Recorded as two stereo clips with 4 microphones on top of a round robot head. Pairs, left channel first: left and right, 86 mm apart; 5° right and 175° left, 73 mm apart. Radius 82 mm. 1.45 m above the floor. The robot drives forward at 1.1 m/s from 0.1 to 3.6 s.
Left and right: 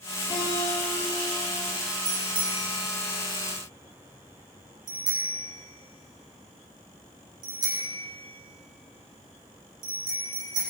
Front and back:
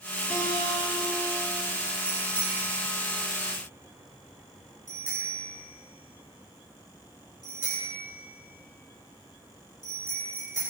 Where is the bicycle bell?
110° right, 4.5 m; by 10.6 s 125° right, 5 m.